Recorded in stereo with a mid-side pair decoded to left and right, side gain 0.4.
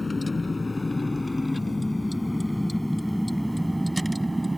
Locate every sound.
0.0 s a vehicle: 25° left; by 4.6 s 15° right